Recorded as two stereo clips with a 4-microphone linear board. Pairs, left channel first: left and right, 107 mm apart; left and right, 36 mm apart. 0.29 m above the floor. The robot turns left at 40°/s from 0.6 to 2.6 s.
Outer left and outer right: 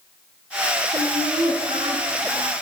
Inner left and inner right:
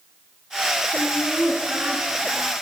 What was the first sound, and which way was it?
Laughter, 50° right.